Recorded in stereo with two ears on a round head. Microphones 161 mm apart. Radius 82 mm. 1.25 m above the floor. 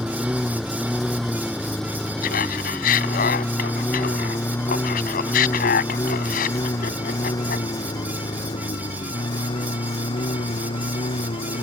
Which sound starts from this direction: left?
Laughter, at 2.2 s.